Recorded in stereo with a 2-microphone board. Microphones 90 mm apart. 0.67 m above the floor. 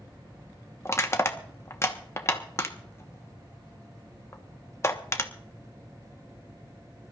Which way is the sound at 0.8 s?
30° left (ahead or behind).